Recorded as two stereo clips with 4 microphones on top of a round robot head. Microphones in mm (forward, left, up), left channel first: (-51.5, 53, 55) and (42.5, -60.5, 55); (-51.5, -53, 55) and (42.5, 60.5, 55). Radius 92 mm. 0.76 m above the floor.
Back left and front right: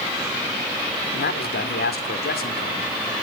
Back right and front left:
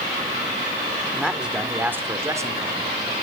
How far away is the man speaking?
About 2.5 m.